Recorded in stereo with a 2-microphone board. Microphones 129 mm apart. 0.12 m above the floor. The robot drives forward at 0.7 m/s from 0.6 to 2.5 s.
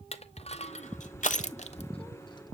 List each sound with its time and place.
0.1 s crushing: 55° left (ahead or behind), 0.8 m; by 2.5 s 35° left (ahead or behind), 1.1 m